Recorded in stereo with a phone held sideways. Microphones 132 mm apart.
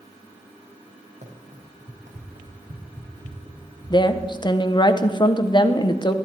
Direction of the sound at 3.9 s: 35° left (ahead or behind).